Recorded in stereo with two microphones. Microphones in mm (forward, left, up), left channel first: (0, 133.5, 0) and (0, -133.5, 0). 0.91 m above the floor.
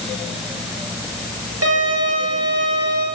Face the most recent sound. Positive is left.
turn(degrees=-65)  # may be behind; listen again after turning